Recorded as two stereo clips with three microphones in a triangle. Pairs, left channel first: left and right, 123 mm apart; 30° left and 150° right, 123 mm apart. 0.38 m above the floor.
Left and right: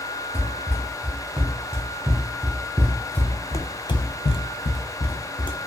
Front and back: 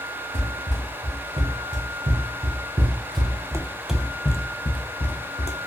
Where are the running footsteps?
165° right, 1.9 m; by 5.6 s 50° left, 0.9 m.